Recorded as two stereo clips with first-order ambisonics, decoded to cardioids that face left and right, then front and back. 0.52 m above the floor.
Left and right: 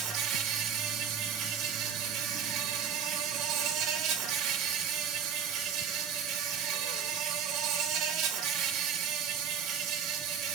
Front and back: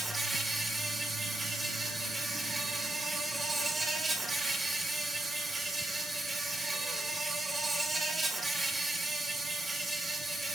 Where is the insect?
105° right, 1.5 m.